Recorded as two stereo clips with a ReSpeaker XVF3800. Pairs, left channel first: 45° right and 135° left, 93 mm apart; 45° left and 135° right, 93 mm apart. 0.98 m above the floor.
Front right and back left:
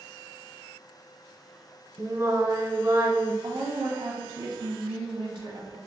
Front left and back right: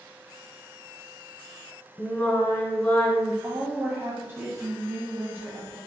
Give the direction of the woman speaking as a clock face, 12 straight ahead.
6 o'clock.